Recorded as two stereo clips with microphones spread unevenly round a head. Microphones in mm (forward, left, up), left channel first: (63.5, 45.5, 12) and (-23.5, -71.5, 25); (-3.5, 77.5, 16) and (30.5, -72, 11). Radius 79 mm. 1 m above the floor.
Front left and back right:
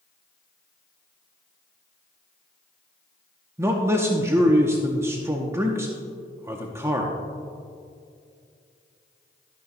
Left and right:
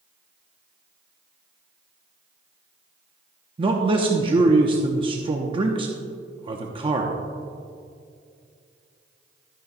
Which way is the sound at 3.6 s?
60° right.